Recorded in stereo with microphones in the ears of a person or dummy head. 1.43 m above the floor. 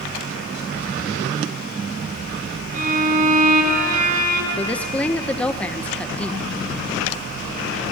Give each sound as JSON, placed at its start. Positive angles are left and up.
{"t": 2.7, "sound": "a violin", "side_deg": -40, "distance_m": 5.0}
{"t": 4.6, "sound": "a woman speaking", "side_deg": 5, "distance_m": 1.2}